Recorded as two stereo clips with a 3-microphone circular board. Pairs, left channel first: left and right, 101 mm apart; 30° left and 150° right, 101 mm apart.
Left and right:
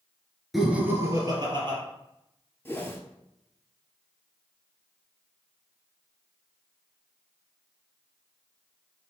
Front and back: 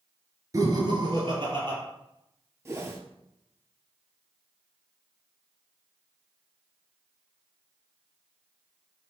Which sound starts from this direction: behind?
Laughter, at 0.5 s.